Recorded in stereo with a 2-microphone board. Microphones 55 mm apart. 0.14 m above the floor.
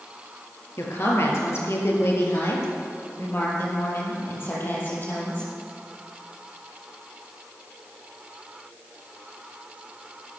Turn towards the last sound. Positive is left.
turn(degrees=40)  # may be behind; listen again after turning